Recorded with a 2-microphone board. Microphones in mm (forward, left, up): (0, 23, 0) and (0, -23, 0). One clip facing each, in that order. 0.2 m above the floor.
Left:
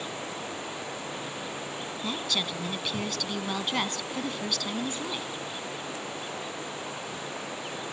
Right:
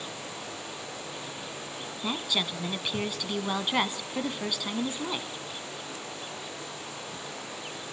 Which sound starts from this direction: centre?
A woman speaking, at 2.0 s.